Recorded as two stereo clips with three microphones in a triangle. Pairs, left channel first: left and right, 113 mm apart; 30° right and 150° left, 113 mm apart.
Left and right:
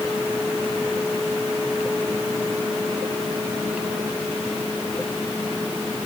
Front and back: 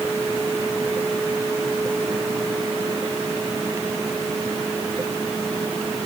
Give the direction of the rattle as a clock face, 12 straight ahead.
No rattle in this recording.